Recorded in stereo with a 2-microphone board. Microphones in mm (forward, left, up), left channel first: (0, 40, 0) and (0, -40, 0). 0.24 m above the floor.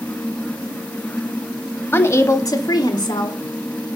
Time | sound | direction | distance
1.9 | a woman speaking | 30° left (ahead or behind) | 1.1 m